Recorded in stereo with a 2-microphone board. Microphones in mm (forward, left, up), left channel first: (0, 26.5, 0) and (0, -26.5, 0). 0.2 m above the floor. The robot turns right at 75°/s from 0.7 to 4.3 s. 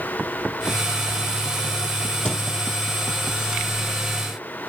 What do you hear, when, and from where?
2.2 s a thud: 15° left (ahead or behind), 1.0 m; by 2.4 s 30° left (ahead or behind), 1.0 m